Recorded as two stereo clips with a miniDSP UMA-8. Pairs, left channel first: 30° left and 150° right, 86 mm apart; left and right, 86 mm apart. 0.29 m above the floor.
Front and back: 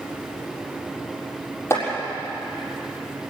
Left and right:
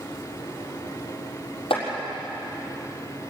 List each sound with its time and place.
1.7 s chopping: 90° left, 6.5 m